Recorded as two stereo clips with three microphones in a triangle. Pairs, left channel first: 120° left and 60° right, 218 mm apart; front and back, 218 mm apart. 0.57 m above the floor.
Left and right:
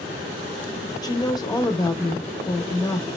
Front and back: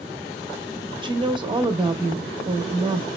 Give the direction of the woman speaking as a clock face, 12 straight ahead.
7 o'clock.